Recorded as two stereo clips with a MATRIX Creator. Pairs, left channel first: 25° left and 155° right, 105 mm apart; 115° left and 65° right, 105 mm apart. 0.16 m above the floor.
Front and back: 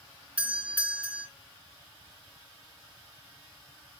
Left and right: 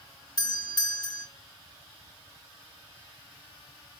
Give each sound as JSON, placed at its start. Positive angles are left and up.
{"t": 0.4, "sound": "a doorbell", "azimuth_deg": 130, "distance_m": 2.5}